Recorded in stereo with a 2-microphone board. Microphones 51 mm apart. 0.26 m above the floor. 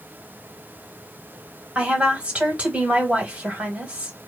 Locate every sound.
1.8 s a woman speaking: 25° right (ahead or behind), 1.2 m